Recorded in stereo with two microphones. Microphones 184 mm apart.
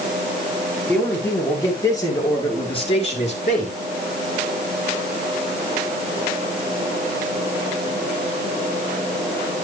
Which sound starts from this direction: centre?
A man speaking, at 0.9 s.